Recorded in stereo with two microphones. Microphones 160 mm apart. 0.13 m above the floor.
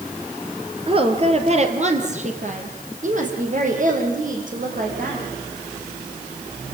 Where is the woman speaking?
35° right (ahead or behind), 3 m; by 5.3 s 55° right (ahead or behind), 9 m.